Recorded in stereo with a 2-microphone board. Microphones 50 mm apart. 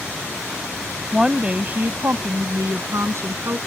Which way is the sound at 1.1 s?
15° right (ahead or behind).